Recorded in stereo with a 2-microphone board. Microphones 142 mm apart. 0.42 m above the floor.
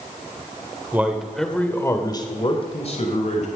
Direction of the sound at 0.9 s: 15° right (ahead or behind).